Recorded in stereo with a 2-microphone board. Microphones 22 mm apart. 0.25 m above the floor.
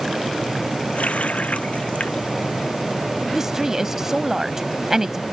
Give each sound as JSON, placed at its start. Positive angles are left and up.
{"t": 0.9, "sound": "a running tap", "side_deg": 80}
{"t": 3.3, "sound": "a woman speaking", "side_deg": -25}